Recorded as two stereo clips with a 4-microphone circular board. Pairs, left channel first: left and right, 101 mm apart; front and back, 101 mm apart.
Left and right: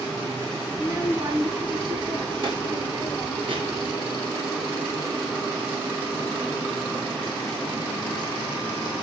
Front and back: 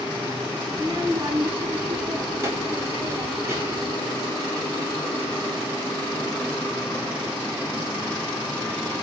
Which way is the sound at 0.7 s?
150° right.